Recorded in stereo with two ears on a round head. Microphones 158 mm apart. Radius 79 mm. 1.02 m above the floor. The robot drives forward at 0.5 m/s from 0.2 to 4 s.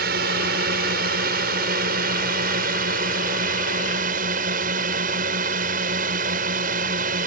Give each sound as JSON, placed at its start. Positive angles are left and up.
{"t": 0.0, "sound": "a drone", "side_deg": -60}